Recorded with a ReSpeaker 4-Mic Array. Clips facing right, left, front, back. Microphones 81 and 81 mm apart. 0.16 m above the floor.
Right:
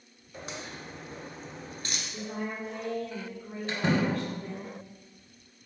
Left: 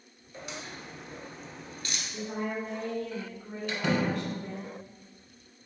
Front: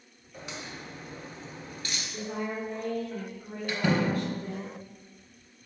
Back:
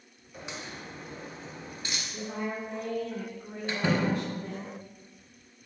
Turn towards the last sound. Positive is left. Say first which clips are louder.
# right 1 dB, front 1 dB
turn(degrees=-130)